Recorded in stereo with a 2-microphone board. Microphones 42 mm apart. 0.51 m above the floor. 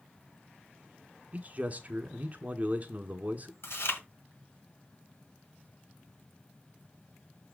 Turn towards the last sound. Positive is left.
turn(degrees=70)  # may be behind; listen again after turning